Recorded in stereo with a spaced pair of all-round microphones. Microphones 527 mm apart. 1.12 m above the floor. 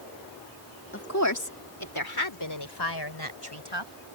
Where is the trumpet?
I don't hear a trumpet.